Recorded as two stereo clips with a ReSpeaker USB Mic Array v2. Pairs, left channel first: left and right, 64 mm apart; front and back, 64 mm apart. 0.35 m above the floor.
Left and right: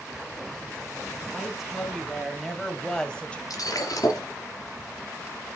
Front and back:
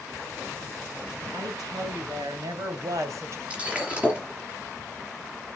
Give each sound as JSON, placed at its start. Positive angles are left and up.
{"t": 1.3, "sound": "a woman speaking", "azimuth_deg": -175, "distance_m": 3.5}
{"t": 3.5, "sound": "breaking glass", "azimuth_deg": 110, "distance_m": 3.5}